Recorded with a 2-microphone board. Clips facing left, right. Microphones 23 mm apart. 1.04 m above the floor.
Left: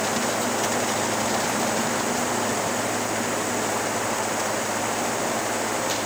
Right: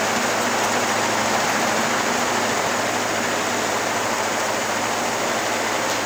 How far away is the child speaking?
No child speaking in this recording.